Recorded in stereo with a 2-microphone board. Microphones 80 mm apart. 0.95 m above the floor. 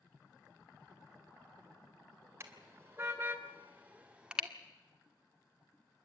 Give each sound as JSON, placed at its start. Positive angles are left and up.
{"t": 2.4, "sound": "a car horn", "side_deg": -35, "distance_m": 2.5}